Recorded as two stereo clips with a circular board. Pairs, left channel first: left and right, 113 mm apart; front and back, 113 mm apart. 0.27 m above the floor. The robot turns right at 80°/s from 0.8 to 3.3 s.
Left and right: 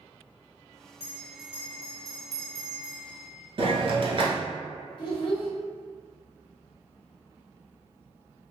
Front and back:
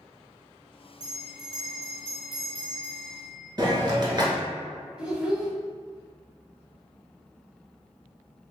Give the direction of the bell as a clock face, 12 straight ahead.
7 o'clock.